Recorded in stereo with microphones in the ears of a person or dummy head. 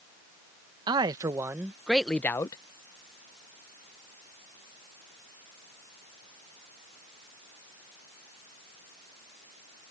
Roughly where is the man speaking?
Right.